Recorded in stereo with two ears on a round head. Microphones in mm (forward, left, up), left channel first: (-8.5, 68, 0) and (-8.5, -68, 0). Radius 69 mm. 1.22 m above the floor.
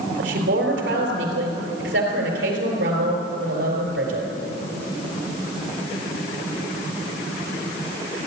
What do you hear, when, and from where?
0.2 s a woman speaking: 80° right, 4 m